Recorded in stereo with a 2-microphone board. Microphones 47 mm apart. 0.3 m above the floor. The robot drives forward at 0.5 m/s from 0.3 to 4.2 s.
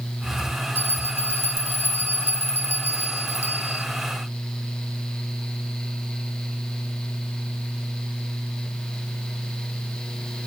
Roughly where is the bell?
Left.